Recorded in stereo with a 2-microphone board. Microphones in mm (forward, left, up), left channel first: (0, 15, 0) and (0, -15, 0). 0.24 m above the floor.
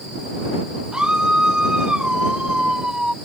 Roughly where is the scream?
Right.